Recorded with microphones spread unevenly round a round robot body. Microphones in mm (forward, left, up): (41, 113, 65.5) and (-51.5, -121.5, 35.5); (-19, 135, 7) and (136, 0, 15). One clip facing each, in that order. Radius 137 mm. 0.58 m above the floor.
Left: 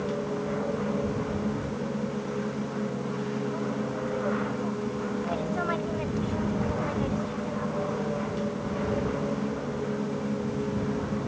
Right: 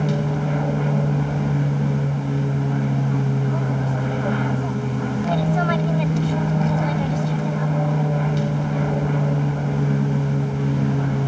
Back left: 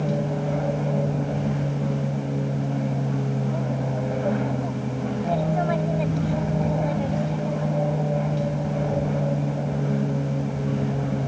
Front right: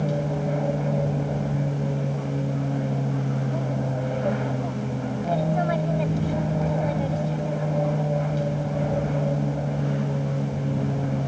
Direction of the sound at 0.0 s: 130° right.